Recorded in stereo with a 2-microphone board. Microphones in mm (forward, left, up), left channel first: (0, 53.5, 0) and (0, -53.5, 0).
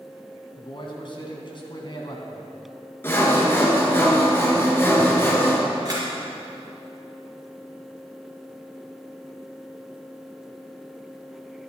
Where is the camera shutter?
35° right (ahead or behind), 3.5 m.